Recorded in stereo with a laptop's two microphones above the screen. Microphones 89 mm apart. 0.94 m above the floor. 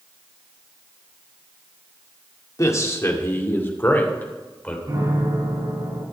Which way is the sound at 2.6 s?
40° left (ahead or behind).